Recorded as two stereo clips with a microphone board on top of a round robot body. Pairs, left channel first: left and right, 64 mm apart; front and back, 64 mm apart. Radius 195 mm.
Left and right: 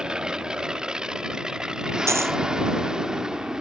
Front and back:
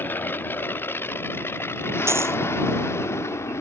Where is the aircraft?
20° right; by 3.6 s 15° right.